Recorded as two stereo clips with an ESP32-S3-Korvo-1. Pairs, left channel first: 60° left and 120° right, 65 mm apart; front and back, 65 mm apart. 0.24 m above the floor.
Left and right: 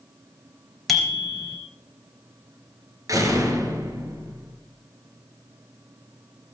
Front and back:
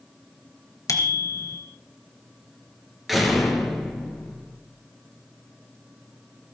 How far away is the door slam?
About 3.5 m.